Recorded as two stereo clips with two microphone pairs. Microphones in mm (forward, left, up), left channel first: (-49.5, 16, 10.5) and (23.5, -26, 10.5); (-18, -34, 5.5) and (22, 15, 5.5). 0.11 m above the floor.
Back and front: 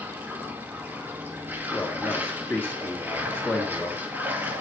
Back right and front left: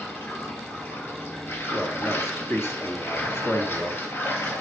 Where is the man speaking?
155° right, 2 m.